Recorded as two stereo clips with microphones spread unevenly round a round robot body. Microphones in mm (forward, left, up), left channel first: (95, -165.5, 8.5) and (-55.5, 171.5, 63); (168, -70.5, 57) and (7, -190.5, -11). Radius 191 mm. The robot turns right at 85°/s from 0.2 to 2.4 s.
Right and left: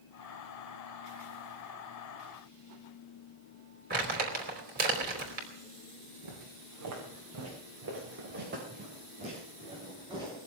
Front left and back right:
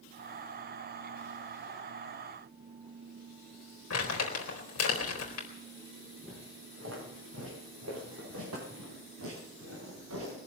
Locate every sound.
3.9 s crumpling: 45° left, 3.5 m
6.2 s footsteps: 150° left, 4.5 m; by 10.5 s 165° right, 7 m